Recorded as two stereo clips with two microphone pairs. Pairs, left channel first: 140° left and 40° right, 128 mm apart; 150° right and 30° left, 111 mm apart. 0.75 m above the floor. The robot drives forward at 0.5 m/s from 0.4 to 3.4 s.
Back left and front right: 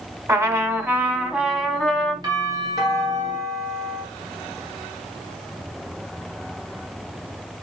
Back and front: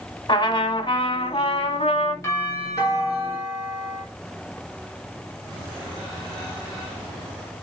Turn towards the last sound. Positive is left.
turn(degrees=-100)